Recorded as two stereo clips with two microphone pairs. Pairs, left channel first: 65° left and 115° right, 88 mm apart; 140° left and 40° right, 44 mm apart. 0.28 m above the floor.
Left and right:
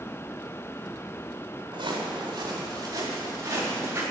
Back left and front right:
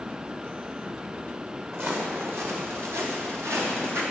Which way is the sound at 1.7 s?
85° right.